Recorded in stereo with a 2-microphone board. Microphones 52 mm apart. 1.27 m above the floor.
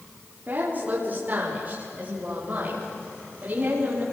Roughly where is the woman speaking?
Right.